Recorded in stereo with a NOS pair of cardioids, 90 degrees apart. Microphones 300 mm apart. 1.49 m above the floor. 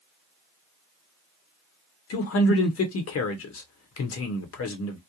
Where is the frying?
No frying in this recording.